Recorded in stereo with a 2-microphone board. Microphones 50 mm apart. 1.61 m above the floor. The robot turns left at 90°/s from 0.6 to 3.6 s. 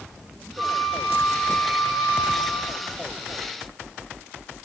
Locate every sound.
0.6 s a flute: 50° right, 7.5 m; by 2.9 s 105° left, 7.5 m